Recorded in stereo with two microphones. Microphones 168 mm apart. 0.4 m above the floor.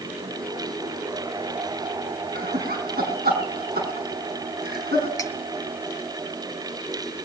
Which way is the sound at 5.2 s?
20° left (ahead or behind).